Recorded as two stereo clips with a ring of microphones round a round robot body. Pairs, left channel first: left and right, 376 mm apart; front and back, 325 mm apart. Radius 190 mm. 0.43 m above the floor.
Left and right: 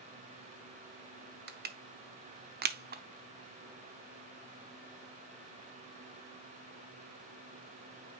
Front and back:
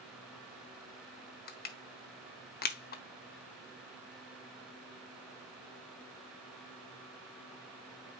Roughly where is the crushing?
Ahead right.